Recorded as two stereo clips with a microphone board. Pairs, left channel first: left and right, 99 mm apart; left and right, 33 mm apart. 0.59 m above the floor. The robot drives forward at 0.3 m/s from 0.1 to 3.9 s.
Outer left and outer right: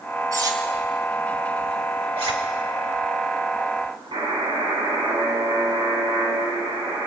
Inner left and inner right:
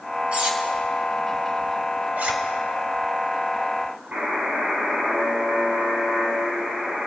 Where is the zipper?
65° right (ahead or behind), 2 m.